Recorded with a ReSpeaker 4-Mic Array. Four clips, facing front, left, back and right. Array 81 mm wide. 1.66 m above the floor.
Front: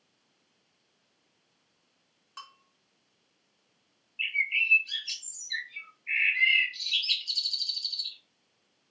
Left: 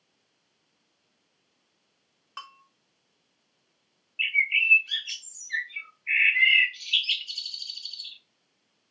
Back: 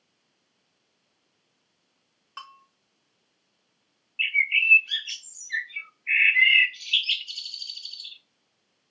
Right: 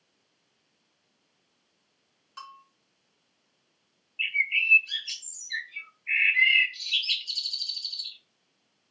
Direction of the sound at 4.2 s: 155° left.